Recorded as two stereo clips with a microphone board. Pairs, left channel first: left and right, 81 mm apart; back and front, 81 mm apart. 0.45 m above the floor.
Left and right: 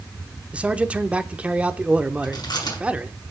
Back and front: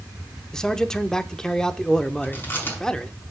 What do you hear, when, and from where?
0.5 s a man speaking: 115° right, 0.7 m
2.2 s chewing: 115° left, 5.5 m